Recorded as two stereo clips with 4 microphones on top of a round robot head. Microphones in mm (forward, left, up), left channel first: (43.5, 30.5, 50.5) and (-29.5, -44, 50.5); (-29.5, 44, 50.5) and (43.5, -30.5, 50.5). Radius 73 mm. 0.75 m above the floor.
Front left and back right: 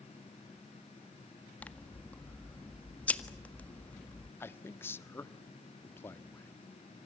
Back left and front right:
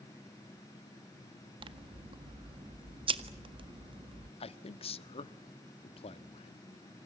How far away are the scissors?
About 1.7 m.